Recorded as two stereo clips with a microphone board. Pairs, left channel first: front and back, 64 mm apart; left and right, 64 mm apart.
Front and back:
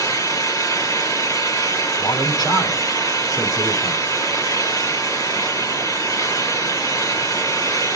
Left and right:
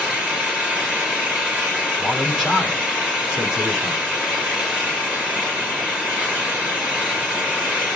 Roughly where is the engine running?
Ahead.